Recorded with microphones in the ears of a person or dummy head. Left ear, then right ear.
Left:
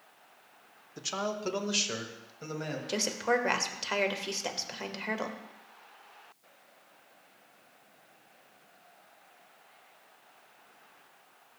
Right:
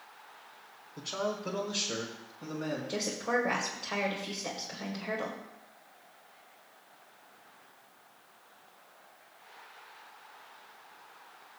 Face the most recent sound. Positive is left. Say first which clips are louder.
# left 4 dB
turn(degrees=70)  # may be behind; listen again after turning